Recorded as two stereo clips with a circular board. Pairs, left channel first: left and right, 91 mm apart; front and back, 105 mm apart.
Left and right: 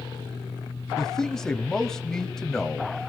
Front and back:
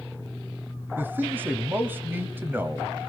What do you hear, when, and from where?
1.0 s a man speaking: 160° left, 1.4 m